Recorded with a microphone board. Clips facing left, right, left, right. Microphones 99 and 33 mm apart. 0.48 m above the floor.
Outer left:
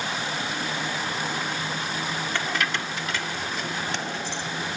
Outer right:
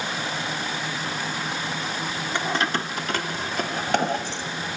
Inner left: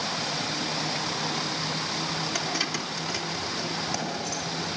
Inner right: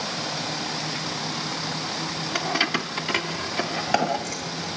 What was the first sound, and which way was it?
Keys jangling, 20° right (ahead or behind).